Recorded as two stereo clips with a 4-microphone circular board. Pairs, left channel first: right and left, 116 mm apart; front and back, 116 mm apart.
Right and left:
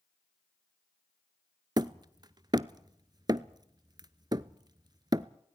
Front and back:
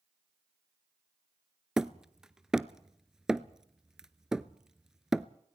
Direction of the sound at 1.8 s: 100° left.